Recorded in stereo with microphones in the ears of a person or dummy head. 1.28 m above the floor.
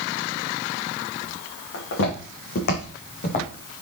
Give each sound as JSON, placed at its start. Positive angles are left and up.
{"t": 1.7, "sound": "footsteps", "side_deg": 65, "distance_m": 4.5}